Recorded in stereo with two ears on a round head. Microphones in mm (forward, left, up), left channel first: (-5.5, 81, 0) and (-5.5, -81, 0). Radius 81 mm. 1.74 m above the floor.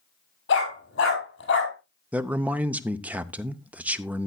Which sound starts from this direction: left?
A dog barking, at 0.5 s.